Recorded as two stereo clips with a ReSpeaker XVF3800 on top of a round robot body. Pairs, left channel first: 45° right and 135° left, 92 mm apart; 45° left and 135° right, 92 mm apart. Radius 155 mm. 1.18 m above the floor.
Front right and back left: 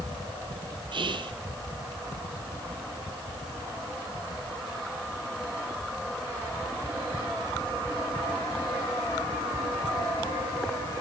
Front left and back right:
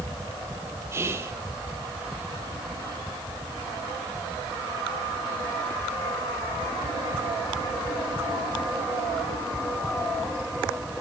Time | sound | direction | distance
0.9 | whispering | 165° left | 0.6 m